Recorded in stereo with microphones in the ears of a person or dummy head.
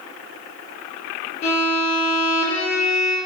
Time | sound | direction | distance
1.4 | a violin | 40° left (ahead or behind) | 1.2 m